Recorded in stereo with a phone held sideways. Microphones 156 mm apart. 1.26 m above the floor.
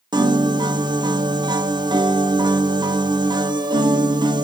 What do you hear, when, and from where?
0.1 s a piano: 25° right (ahead or behind), 0.6 m